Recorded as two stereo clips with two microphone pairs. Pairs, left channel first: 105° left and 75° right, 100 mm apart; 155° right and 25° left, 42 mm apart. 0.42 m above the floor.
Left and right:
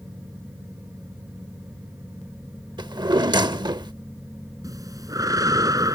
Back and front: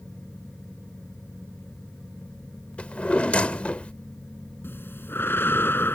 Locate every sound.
2.8 s a drawer: 100° right
4.6 s breathing: 125° right